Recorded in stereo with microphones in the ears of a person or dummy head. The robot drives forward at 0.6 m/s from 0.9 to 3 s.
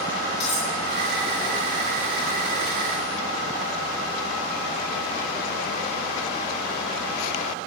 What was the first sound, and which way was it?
Cutlery clinking, 30° left (ahead or behind).